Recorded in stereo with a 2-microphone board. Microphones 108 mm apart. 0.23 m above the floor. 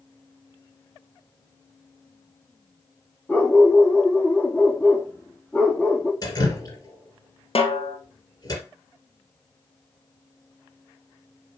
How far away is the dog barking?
About 3 m.